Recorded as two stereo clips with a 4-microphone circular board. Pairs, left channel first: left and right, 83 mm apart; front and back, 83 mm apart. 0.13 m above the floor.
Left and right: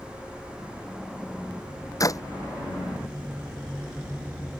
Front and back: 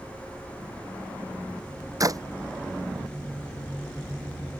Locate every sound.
2.0 s a clap: 135° left